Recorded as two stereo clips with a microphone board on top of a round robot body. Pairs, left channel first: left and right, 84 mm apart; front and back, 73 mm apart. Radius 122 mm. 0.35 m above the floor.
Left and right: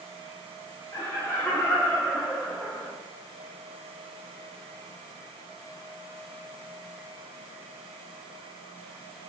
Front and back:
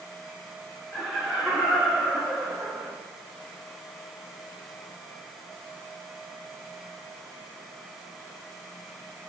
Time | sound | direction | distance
0.9 | laughter | 85° left | 1.8 m